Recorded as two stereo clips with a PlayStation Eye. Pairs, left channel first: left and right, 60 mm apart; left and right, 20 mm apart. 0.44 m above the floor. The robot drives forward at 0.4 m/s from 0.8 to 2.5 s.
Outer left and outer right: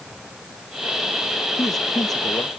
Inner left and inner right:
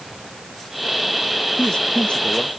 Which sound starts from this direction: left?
A man speaking, at 1.6 s.